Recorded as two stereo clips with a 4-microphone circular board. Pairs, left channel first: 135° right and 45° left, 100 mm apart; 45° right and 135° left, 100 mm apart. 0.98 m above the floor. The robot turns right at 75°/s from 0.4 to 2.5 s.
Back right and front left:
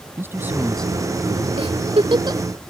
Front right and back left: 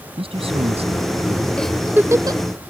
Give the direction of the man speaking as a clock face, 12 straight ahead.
8 o'clock.